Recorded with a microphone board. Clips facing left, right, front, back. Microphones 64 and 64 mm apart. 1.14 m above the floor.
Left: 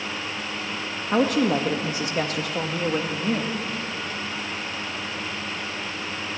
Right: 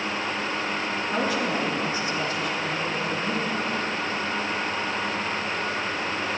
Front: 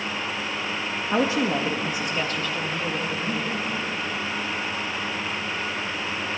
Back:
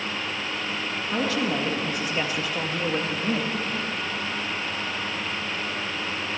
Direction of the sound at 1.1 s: 55° left.